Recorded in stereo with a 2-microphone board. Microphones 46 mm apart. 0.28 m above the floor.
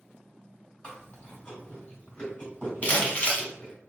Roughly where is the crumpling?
Left.